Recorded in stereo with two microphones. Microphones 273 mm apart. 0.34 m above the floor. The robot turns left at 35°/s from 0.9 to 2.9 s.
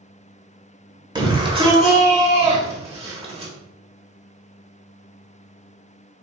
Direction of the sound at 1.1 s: 15° right (ahead or behind).